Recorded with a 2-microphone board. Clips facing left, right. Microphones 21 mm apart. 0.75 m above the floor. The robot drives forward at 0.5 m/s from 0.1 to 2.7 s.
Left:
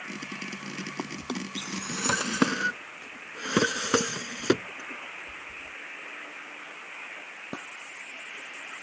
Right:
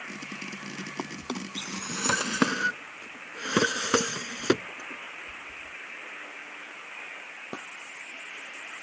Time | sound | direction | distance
1.0 | a drawer | 5° right (ahead or behind) | ?